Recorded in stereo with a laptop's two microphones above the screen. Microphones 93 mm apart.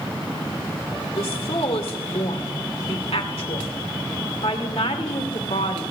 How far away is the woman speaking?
About 2 m.